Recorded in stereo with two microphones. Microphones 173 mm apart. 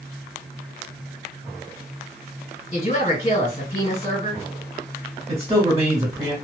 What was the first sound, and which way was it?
A woman speaking, 45° left (ahead or behind).